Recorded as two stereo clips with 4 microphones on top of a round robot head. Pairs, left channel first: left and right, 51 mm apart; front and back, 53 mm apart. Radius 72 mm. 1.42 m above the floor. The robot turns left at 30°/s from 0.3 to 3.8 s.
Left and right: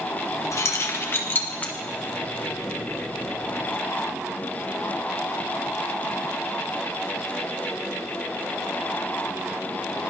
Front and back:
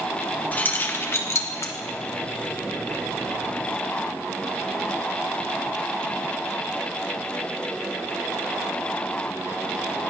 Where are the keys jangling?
65° left, 1.5 m; by 1.7 s 25° left, 1.5 m.